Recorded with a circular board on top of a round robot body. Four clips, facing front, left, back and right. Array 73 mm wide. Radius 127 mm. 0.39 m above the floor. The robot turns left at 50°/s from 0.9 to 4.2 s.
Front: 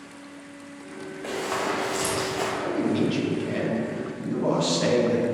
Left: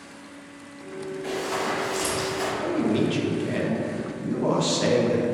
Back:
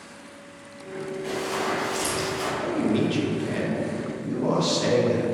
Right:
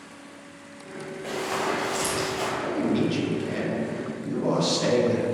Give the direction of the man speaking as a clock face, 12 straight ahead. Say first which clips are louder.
Left 2 dB, back 1 dB; 7 o'clock.